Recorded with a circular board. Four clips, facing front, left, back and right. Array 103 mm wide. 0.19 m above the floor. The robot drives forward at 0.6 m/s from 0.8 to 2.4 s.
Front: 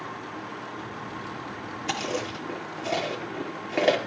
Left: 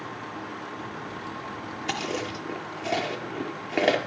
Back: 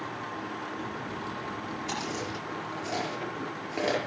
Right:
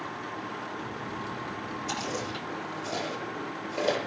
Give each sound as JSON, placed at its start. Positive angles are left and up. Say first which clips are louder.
{"t": 1.9, "sound": "chewing", "louder": "left 5 dB, front 7 dB", "azimuth_deg": 55, "distance_m": 5.0}